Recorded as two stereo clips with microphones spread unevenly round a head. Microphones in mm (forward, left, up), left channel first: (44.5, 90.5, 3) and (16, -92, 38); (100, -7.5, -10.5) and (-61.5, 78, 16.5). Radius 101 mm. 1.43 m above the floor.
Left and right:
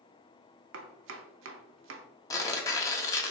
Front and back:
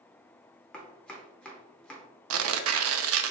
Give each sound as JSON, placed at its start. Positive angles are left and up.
{"t": 0.7, "sound": "chopping", "azimuth_deg": -110, "distance_m": 0.5}
{"t": 2.3, "sound": "tearing paper", "azimuth_deg": 155, "distance_m": 0.5}